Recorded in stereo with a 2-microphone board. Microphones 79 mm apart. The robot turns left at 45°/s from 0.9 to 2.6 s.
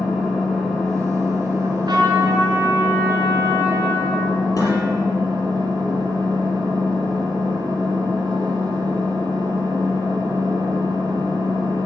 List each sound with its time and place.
0.0 s an engine running: 5° right, 3.5 m; by 11.9 s 80° right, 3.5 m
1.6 s a trumpet: 105° right, 3 m; by 4.4 s 150° right, 3 m
4.6 s dishes clattering: 50° left (ahead or behind), 5.5 m